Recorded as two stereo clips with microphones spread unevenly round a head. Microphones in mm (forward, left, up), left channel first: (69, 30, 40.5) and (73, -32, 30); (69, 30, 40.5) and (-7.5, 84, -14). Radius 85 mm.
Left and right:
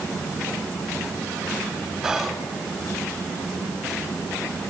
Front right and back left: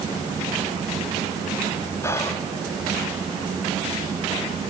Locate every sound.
2.0 s whispering: 135° right, 0.7 m